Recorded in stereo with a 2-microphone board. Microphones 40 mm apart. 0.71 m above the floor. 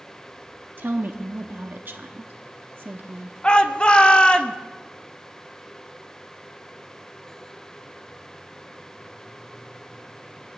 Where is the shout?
25° left (ahead or behind), 0.9 m.